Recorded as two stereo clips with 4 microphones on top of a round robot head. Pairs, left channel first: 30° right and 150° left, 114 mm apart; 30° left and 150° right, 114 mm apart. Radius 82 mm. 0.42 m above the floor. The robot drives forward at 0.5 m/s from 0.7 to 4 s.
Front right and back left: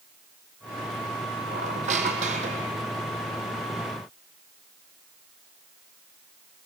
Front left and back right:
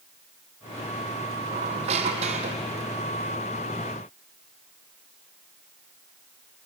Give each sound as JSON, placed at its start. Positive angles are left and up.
{"t": 1.5, "sound": "a squeak", "azimuth_deg": 175, "distance_m": 1.9}